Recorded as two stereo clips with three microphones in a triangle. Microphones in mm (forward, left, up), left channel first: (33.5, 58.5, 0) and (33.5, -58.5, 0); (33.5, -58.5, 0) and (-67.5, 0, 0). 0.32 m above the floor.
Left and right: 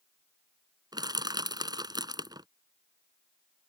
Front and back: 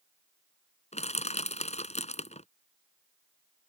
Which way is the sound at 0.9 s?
35° right.